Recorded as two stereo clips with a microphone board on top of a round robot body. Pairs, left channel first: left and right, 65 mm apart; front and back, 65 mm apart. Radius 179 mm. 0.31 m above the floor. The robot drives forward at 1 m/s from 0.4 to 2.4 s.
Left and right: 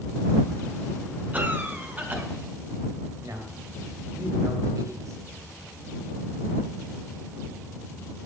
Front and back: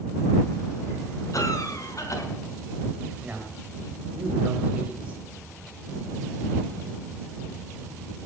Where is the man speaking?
115° right, 3 m.